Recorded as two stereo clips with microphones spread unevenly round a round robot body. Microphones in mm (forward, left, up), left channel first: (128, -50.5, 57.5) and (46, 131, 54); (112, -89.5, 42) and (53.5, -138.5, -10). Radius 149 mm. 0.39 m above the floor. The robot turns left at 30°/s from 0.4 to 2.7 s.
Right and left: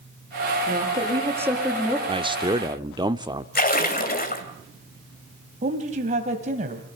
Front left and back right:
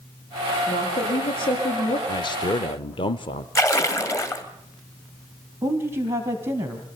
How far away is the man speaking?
About 0.8 m.